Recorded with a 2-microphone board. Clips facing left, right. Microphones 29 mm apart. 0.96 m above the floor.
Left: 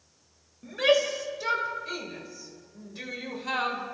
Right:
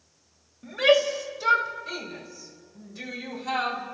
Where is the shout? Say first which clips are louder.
Right 3 dB; 5° right (ahead or behind), 5 m; by 3.8 s 20° left (ahead or behind), 4.5 m.